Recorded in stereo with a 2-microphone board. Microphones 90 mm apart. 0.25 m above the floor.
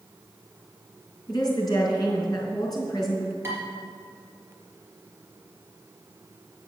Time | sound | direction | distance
1.3 | a woman speaking | 45° left (ahead or behind) | 3 m
3.4 | dishes clattering | 30° right (ahead or behind) | 3.5 m